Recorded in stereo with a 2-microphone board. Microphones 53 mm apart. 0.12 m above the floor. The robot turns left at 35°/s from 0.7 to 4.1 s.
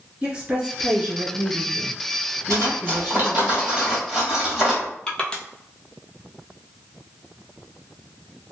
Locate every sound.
0.2 s a woman speaking: 30° right, 1.5 m; by 3.5 s 130° right, 1.5 m
2.5 s cutlery clinking: 55° right (ahead or behind), 1.8 m; by 4.9 s 5° right (ahead or behind), 1.8 m
5.1 s crushing: 15° left (ahead or behind), 0.6 m